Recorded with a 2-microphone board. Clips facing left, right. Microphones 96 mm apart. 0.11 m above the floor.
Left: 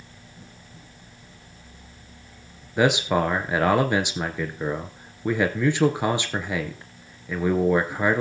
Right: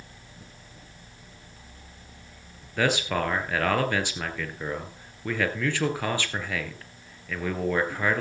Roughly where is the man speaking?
Centre.